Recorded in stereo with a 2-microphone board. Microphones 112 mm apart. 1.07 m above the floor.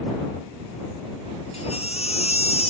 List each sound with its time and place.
1.5 s a baby crying: 70° left (ahead or behind)